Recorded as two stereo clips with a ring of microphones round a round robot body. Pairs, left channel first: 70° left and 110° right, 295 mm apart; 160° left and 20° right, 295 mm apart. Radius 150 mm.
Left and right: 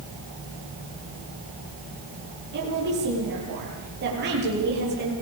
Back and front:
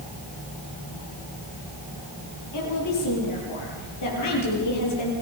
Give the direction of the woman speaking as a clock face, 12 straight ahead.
6 o'clock.